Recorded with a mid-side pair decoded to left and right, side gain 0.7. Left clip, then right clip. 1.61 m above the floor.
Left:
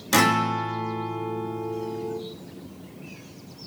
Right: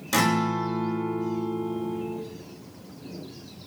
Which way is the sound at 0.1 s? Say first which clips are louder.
Left 3 dB; 20° left.